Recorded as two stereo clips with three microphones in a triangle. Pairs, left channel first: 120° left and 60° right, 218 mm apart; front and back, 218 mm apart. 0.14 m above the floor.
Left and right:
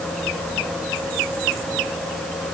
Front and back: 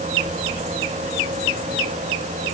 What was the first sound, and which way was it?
Only background noise.